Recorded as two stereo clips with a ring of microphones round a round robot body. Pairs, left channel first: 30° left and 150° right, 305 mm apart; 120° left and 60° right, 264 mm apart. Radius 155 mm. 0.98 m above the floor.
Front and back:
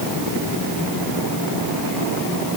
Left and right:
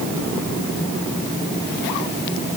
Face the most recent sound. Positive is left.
No sound to turn to.